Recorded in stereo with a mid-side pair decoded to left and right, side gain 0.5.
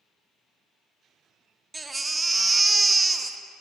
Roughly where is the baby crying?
Ahead.